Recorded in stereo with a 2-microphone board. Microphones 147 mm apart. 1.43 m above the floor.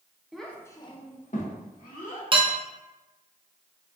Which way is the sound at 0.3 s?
Centre (ahead or behind).